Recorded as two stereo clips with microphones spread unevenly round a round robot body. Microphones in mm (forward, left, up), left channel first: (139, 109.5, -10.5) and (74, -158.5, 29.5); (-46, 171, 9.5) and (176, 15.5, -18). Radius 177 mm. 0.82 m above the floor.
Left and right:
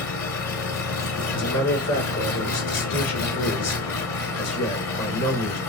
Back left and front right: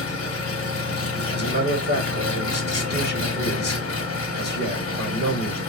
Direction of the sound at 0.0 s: 110° left.